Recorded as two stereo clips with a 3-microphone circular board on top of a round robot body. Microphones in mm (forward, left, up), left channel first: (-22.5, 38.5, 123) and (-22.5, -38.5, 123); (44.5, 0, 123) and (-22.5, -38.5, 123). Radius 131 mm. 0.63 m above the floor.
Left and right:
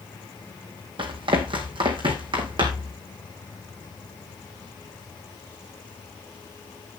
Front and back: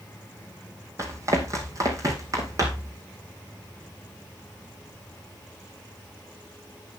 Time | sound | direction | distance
1.0 | running footsteps | 95° right | 2.5 m